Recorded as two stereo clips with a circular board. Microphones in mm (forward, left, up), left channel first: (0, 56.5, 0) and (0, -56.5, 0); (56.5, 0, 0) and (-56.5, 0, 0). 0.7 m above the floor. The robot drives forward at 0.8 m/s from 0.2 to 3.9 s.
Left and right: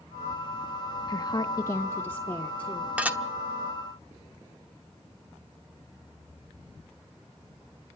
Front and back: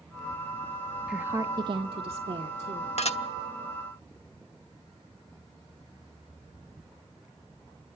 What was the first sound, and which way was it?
A woman speaking, 95° left.